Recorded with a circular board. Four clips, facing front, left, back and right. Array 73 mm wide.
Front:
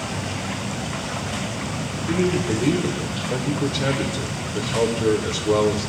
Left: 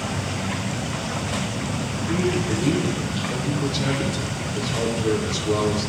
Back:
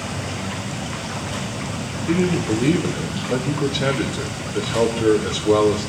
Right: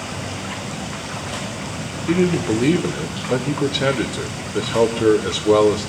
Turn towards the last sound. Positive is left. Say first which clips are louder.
# right 6 dB, back 2 dB
turn(degrees=-105)